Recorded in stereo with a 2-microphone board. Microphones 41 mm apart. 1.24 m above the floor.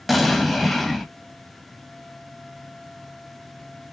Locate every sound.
0.1 s an explosion: 5° left (ahead or behind), 1.0 m